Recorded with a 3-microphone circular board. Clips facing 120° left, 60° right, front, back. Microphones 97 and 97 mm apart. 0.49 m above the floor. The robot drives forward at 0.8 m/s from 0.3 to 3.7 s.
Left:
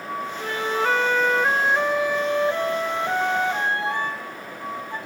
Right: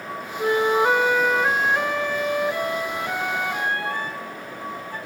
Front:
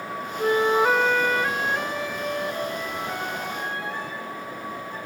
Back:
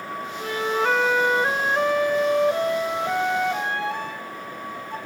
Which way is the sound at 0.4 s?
20° right.